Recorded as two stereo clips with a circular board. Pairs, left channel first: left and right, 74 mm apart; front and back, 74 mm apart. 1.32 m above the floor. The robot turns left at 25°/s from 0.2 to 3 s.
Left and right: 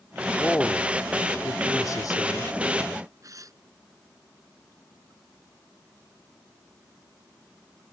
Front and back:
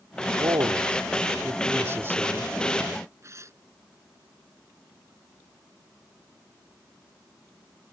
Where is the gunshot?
I don't hear a gunshot.